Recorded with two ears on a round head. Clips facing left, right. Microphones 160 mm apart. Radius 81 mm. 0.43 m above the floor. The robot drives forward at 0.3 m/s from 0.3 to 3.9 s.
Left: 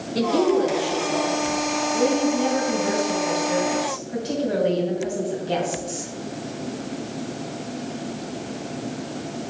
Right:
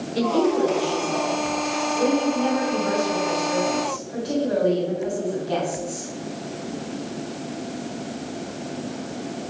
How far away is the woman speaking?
About 5 m.